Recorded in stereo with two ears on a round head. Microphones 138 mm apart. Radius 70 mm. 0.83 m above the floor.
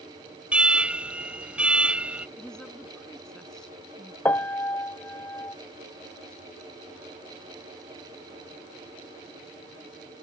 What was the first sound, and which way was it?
An alarm, 10° right (ahead or behind).